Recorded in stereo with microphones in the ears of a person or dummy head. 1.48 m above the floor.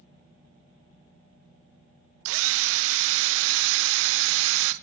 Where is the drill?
80° right, 0.6 m.